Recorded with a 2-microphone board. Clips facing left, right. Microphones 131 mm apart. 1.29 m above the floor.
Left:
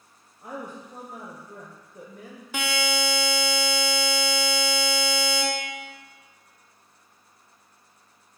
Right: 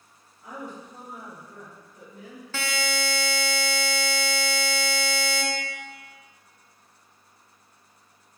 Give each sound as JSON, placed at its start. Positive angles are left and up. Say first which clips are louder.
{"t": 0.4, "sound": "a woman speaking", "louder": "left 2 dB", "side_deg": 45, "distance_m": 0.6}
{"t": 2.5, "sound": "a buzzer", "louder": "left 3 dB", "side_deg": 15, "distance_m": 0.5}